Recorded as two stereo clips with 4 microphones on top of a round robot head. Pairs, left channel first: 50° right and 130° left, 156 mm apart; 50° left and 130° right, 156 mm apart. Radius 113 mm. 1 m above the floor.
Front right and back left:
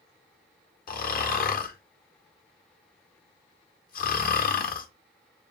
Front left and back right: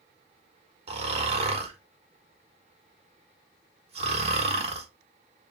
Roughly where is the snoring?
Right.